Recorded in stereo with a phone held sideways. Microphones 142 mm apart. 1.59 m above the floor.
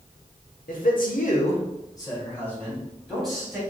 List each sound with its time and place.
0.7 s a man speaking: 75° left (ahead or behind), 1.2 m; by 3.6 s 5° right (ahead or behind), 3 m